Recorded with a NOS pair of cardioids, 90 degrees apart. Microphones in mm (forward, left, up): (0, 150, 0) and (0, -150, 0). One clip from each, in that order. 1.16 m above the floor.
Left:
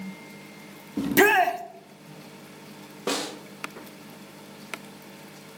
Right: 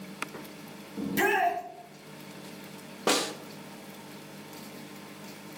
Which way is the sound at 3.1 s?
15° right.